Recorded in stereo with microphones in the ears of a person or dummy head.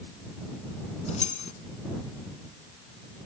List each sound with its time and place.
1.1 s keys jangling: 40° left (ahead or behind)